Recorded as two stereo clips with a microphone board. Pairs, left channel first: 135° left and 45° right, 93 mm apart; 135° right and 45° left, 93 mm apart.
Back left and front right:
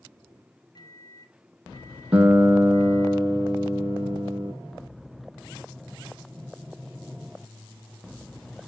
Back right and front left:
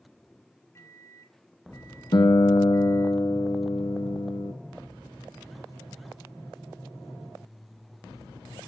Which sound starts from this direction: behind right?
A guitar, at 2.1 s.